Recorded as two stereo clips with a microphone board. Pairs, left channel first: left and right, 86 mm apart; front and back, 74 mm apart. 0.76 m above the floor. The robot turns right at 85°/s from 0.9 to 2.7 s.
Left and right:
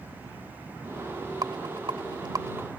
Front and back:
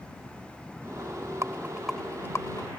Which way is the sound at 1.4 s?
130° right.